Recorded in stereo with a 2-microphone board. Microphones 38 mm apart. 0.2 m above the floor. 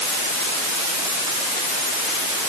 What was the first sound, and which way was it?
Only background noise.